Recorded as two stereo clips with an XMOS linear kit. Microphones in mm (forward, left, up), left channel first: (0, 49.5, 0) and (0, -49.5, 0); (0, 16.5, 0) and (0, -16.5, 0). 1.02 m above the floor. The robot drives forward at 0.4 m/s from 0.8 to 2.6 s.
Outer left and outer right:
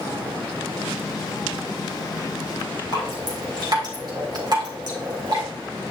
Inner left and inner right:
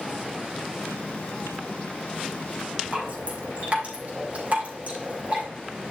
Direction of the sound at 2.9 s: 45° right (ahead or behind).